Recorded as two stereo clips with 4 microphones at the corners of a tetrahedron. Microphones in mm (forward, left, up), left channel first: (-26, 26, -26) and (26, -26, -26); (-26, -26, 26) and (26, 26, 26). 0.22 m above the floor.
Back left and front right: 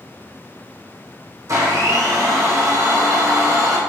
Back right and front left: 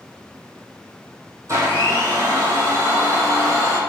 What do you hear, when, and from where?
1.5 s a blender: straight ahead, 2.5 m